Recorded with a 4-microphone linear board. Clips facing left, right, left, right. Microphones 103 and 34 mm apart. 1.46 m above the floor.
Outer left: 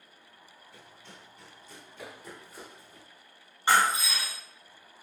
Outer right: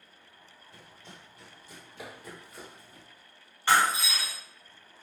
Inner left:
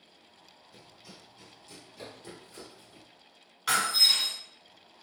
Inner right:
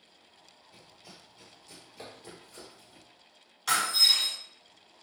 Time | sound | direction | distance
0.7 | running footsteps | 25° right (ahead or behind) | 1.7 m
3.7 | breaking glass | 20° left (ahead or behind) | 1.7 m